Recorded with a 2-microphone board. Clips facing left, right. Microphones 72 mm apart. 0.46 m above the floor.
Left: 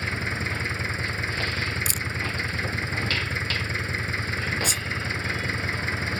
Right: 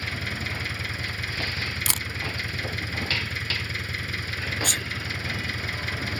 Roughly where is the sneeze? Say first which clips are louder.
Even; right.